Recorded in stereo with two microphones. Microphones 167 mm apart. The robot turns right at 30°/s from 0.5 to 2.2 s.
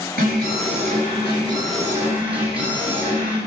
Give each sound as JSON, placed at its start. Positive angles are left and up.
{"t": 0.2, "sound": "an alarm", "azimuth_deg": -60, "distance_m": 5.5}